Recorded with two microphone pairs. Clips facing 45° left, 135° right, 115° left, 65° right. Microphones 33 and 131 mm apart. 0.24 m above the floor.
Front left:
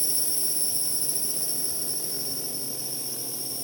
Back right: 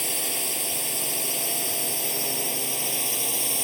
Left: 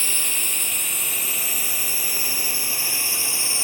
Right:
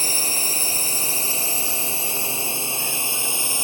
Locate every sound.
0.0 s a drone: 120° right; by 3.6 s 135° right